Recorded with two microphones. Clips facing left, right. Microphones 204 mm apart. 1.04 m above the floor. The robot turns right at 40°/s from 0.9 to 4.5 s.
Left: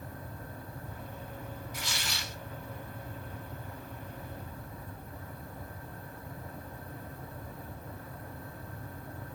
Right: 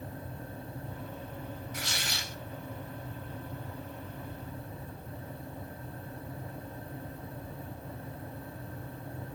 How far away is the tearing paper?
About 1.7 m.